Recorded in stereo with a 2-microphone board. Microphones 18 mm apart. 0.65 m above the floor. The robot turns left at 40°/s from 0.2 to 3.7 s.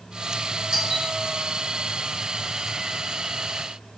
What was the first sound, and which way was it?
A doorbell, 35° right (ahead or behind).